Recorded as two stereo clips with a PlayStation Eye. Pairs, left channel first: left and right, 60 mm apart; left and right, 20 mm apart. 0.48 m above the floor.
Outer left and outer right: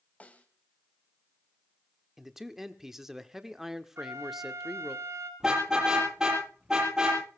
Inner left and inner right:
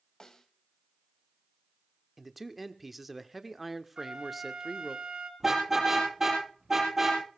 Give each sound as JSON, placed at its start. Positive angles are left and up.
{"t": 0.2, "sound": "a snare drum", "side_deg": 25, "distance_m": 1.7}
{"t": 2.2, "sound": "a man speaking", "side_deg": -5, "distance_m": 1.0}
{"t": 4.0, "sound": "a flute", "side_deg": -60, "distance_m": 2.5}
{"t": 5.4, "sound": "a car horn", "side_deg": -10, "distance_m": 7.5}